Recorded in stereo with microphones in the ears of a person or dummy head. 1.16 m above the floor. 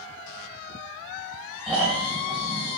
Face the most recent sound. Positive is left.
turn(degrees=0)  # may be behind; listen again after turning